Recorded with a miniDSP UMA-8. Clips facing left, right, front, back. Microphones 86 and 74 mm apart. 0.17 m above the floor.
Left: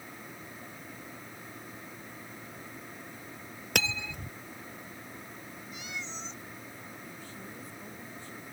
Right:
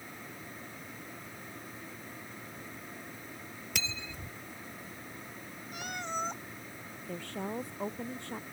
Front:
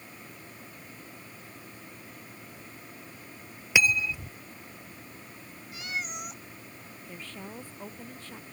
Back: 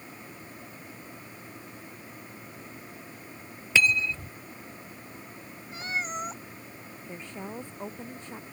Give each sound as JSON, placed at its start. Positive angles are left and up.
{"t": 3.8, "sound": "cutlery clinking", "azimuth_deg": 75}
{"t": 5.7, "sound": "a cat meowing", "azimuth_deg": -125}
{"t": 7.1, "sound": "a woman speaking", "azimuth_deg": -110}